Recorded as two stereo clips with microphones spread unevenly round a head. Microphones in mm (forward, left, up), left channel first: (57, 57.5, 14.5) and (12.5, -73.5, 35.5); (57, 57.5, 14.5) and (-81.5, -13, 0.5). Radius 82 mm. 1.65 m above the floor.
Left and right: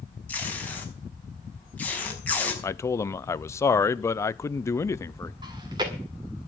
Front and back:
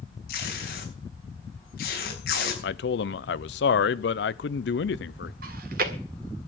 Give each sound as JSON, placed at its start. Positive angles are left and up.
{"t": 0.3, "sound": "tape being pulled", "azimuth_deg": -10, "distance_m": 5.5}
{"t": 2.6, "sound": "a man speaking", "azimuth_deg": 0, "distance_m": 0.7}
{"t": 5.4, "sound": "chewing", "azimuth_deg": -160, "distance_m": 1.8}